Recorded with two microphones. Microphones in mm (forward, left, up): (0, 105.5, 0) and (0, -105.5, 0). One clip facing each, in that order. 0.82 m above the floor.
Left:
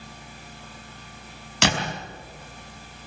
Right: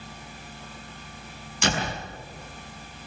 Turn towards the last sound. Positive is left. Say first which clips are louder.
# left 2 dB
turn(degrees=70)  # may be behind; listen again after turning